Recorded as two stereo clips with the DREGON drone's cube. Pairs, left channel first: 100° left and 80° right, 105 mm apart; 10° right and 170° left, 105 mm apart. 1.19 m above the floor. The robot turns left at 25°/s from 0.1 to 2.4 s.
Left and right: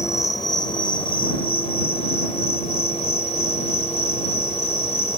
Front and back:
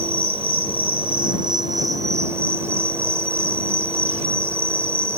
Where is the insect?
160° left; by 5.2 s 105° left.